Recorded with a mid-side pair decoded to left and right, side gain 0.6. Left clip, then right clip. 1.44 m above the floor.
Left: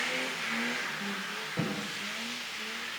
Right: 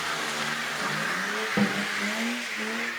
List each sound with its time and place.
1.6 s a snare drum: 55° right, 2.5 m